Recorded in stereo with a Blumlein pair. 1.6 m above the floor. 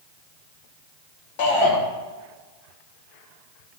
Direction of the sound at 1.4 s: 50° left.